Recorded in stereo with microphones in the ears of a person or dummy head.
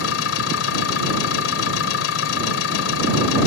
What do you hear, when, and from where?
0.0 s an engine running: 85° left